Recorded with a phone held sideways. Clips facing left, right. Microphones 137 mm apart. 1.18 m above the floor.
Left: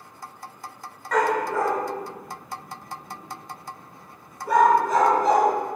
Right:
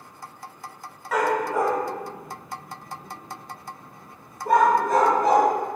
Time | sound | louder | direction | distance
1.1 | a dog barking | even | 5° right (ahead or behind) | 1.3 m